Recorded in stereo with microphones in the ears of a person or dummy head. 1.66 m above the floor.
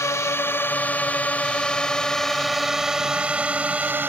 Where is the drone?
10° left (ahead or behind); by 4.1 s 15° right (ahead or behind).